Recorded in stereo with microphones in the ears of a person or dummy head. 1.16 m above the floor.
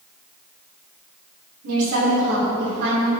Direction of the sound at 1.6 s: 80° right.